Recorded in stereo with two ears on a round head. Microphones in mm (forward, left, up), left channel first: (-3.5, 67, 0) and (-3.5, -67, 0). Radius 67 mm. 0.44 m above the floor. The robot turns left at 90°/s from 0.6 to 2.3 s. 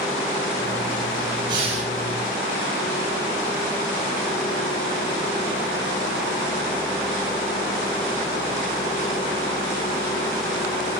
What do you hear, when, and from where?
1.5 s breathing: 35° right, 2 m; by 1.9 s 70° right, 2 m